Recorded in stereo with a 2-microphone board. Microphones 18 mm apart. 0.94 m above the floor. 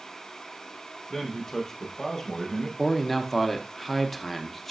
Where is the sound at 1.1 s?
30° left (ahead or behind), 0.8 m.